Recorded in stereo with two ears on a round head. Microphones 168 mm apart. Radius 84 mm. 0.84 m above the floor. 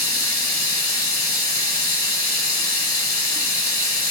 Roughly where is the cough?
No cough in this recording.